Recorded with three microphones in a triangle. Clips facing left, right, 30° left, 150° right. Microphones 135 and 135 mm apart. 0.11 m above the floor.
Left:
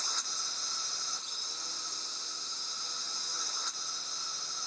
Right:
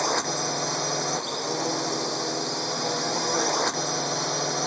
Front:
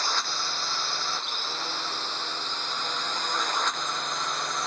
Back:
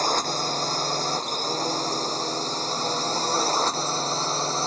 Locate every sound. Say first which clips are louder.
0.0 s a drone: right 20 dB, back 7 dB; 105° right; by 4.7 s 95° right